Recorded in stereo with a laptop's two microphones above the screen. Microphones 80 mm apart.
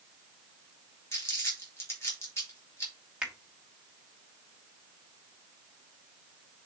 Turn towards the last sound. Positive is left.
turn(degrees=-15)  # may be behind; listen again after turning